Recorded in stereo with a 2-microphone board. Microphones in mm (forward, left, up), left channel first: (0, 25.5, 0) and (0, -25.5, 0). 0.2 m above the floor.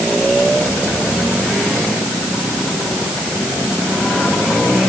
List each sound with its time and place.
Only background noise.